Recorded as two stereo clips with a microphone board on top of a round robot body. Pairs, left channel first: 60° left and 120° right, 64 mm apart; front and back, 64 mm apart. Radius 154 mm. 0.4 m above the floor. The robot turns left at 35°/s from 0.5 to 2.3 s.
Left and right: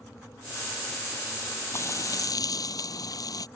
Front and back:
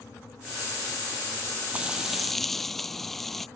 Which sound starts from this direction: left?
Frying, at 1.7 s.